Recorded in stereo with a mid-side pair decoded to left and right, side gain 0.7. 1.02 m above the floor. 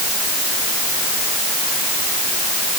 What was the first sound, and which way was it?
Only background noise.